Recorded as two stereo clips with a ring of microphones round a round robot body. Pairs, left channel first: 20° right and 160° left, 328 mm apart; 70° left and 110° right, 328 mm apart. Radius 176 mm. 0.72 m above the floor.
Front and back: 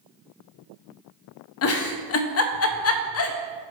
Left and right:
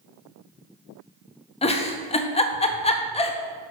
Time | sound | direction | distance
1.6 | a giggle | straight ahead | 0.7 m